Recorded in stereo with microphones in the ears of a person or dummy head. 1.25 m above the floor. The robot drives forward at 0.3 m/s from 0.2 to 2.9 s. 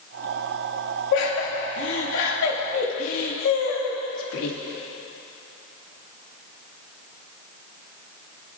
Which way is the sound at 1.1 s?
80° left.